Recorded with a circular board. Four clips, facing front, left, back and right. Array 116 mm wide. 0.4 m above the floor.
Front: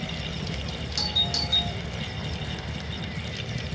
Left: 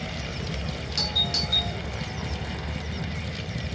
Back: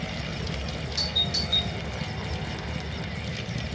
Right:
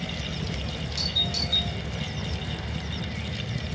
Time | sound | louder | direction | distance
1.0 | a doorbell | left 2 dB, front 1 dB | 55° left | 6.5 m